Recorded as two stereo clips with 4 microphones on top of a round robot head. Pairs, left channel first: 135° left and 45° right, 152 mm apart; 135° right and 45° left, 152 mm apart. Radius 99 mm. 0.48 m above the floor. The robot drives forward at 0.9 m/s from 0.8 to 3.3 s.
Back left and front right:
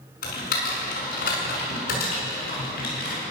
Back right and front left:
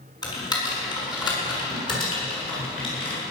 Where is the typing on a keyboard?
160° left, 6 m; by 3.2 s 165° left, 8 m.